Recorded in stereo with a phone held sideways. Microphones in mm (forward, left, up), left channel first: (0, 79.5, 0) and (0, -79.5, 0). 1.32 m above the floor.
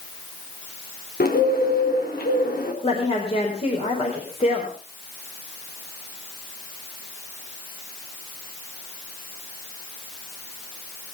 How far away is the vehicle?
No vehicle in this recording.